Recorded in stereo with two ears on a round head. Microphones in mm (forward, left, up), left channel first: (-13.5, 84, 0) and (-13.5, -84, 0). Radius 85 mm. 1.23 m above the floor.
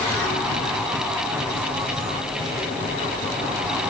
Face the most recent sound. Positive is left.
No sound to turn to.